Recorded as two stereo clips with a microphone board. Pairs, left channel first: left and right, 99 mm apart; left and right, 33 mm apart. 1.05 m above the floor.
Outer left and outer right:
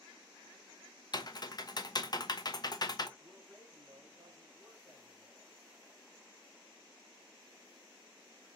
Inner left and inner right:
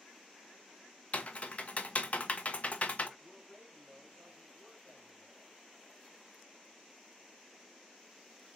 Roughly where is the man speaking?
Centre.